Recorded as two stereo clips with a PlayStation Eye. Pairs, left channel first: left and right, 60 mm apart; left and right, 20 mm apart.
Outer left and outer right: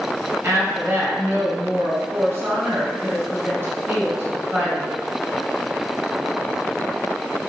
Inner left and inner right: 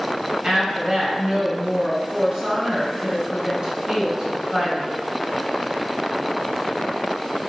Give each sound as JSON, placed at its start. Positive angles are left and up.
{"t": 0.4, "sound": "a woman speaking", "side_deg": -45, "distance_m": 1.9}